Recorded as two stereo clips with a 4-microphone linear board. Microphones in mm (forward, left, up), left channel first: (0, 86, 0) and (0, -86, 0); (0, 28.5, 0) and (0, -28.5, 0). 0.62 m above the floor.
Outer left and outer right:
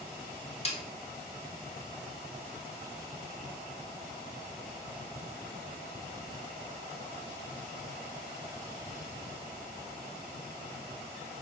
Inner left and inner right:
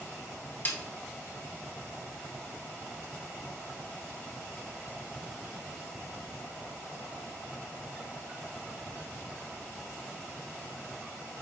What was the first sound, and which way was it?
A snare drum, 35° left (ahead or behind).